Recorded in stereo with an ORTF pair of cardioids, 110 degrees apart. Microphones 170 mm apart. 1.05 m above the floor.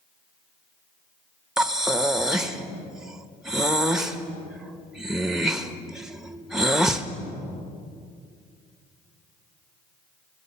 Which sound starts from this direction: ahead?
Breathing, at 1.6 s.